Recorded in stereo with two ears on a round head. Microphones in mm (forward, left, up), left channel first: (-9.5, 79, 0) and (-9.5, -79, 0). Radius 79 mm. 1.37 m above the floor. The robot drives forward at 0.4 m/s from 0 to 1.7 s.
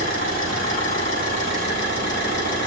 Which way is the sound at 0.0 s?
80° left.